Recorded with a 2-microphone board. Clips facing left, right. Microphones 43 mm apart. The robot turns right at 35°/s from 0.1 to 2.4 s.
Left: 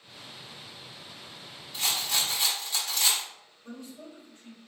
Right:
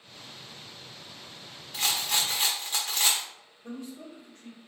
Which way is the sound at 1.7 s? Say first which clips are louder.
Right 1 dB; 65° right (ahead or behind).